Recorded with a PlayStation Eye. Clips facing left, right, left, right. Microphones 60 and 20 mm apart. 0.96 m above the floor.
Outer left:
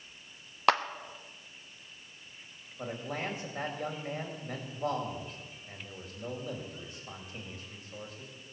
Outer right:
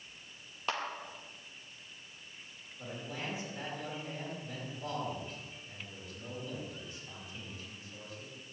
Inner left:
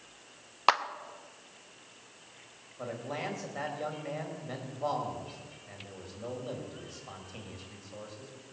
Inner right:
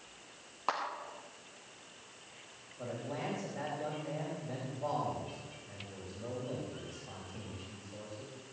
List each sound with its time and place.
0.7 s a clap: 75° left (ahead or behind), 1.0 m
2.8 s a man speaking: 50° left (ahead or behind), 4.5 m